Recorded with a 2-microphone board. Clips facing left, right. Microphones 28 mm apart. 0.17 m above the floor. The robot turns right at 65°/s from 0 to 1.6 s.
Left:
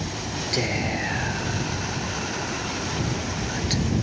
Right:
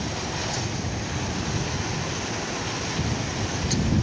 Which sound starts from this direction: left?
Whispering, at 0.5 s.